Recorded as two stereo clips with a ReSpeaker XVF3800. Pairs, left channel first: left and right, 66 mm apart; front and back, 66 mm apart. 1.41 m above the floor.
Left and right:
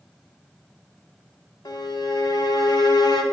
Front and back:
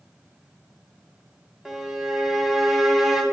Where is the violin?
95° left, 1.4 m.